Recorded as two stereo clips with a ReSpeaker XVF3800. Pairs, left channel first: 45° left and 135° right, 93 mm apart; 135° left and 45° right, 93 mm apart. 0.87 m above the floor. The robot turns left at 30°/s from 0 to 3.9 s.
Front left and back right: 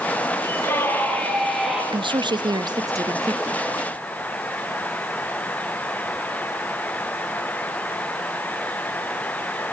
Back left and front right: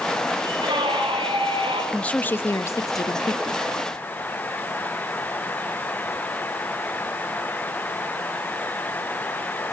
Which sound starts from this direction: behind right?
A woman speaking, at 1.9 s.